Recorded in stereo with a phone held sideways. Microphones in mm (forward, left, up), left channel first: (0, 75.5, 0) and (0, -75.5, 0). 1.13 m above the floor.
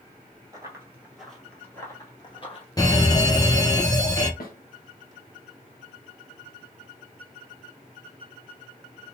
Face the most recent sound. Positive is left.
turn(degrees=70)  # may be behind; listen again after turning